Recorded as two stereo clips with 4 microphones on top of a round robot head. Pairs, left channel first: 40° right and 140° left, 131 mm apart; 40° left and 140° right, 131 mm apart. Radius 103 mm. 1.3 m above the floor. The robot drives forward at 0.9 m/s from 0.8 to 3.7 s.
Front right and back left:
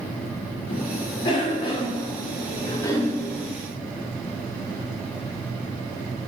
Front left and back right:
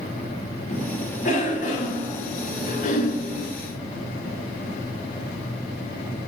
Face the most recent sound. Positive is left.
turn(degrees=40)